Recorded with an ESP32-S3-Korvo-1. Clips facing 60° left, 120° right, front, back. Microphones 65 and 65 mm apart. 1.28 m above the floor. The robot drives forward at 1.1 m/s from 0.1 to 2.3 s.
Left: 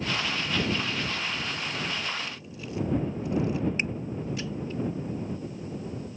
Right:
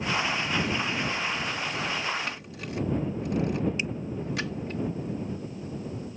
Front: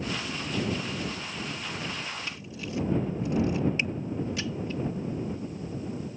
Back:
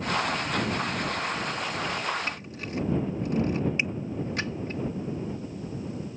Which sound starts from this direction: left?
A finger snap, at 3.8 s.